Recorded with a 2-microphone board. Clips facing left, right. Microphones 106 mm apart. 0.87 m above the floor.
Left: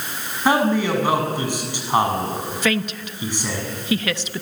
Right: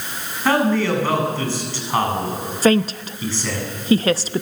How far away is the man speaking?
About 7.5 m.